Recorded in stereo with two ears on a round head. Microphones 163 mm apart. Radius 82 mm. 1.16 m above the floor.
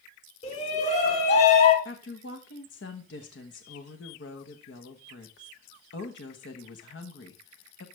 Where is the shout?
40° left (ahead or behind), 4 m.